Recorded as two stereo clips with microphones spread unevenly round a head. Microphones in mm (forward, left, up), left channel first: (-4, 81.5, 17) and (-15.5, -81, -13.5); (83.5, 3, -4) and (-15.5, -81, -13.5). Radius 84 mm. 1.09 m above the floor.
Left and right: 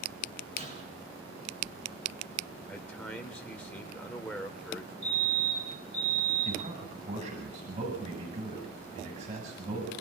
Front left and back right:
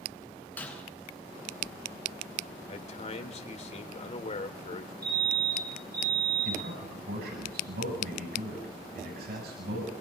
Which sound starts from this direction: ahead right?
Breaking glass, at 0.6 s.